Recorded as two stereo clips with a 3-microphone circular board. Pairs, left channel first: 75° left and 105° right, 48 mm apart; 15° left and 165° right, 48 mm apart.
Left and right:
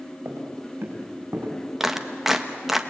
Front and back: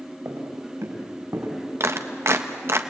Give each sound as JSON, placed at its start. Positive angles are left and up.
{"t": 0.2, "sound": "footsteps", "azimuth_deg": -145, "distance_m": 4.5}
{"t": 1.8, "sound": "a clap", "azimuth_deg": 170, "distance_m": 1.2}